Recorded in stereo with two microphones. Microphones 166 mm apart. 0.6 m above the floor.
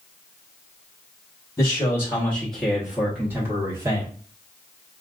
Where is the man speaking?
20° left (ahead or behind), 1.1 m; by 4.1 s 20° right (ahead or behind), 1.4 m.